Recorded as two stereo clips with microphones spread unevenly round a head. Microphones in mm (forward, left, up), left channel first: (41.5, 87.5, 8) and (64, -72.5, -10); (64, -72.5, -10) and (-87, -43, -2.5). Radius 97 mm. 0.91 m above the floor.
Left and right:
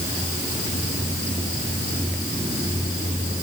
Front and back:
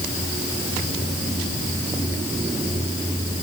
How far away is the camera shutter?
No camera shutter in this recording.